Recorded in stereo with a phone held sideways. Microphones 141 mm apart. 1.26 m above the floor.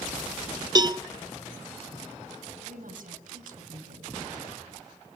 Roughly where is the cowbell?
Right.